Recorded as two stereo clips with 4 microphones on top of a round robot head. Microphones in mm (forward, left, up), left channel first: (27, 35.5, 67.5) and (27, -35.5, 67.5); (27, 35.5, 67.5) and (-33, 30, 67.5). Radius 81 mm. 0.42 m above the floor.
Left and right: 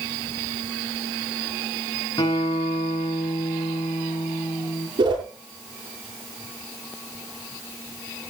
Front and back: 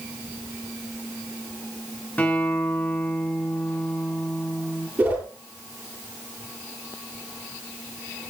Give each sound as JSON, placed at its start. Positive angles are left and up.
{"t": 2.2, "sound": "a guitar", "azimuth_deg": 70, "distance_m": 4.5}
{"t": 5.0, "sound": "a whoosh", "azimuth_deg": -105, "distance_m": 8.0}